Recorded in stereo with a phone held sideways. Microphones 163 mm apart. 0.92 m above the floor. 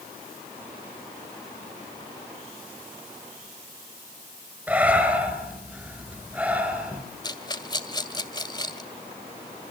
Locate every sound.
4.7 s breathing: 10° right (ahead or behind), 5 m
7.2 s a rattle: 25° left (ahead or behind), 2 m